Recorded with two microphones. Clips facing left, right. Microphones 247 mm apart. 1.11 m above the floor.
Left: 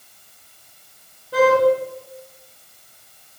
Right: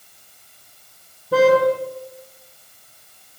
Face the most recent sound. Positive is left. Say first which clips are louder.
# right 2 dB
turn(degrees=-75)  # may be behind; listen again after turning